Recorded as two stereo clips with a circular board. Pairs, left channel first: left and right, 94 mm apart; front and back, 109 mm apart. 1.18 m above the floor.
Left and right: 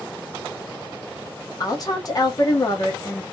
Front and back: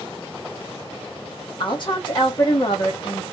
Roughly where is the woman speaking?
Ahead left.